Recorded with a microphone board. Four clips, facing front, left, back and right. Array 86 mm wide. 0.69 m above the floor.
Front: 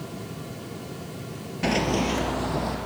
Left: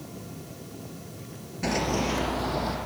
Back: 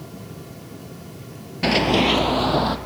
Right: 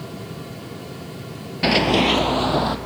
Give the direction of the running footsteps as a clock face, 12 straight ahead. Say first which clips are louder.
Right 9 dB, back 5 dB; 4 o'clock.